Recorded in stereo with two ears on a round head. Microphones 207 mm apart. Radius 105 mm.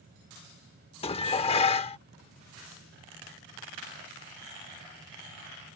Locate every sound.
1.0 s dishes clattering: 25° left (ahead or behind)